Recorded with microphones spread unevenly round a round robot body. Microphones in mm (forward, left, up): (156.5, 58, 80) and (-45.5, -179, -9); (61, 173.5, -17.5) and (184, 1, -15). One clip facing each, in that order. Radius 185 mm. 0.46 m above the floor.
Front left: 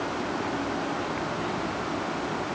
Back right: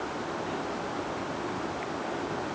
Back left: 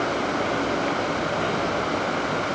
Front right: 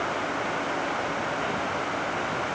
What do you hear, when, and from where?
Only background noise.